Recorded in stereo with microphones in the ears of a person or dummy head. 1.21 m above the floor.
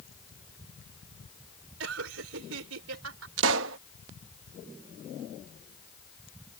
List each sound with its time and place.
1.8 s laughter: 75° right (ahead or behind)
3.4 s a pop: 75° right (ahead or behind)